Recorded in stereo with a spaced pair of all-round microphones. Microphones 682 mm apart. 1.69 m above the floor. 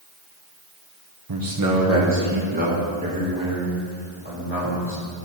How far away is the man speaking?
About 0.9 m.